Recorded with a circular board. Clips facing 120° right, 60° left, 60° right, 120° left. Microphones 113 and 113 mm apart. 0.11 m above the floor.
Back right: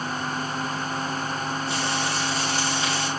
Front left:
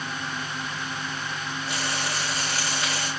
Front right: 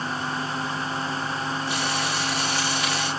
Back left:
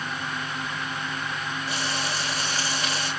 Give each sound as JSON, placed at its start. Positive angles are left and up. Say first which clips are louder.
{"t": 1.7, "sound": "frying", "louder": "back right 2 dB, front right 3 dB", "azimuth_deg": -60, "distance_m": 6.0}